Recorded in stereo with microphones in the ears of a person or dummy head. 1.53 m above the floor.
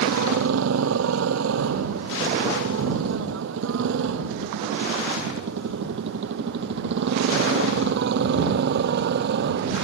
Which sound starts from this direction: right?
A motorcycle, at 0.0 s.